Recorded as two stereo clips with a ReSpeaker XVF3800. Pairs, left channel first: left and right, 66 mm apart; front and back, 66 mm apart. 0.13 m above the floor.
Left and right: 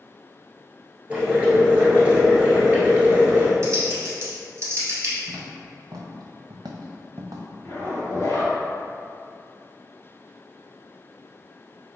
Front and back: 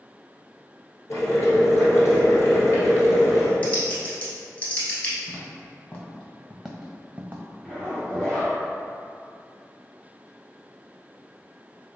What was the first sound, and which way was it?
Boiling, 25° right.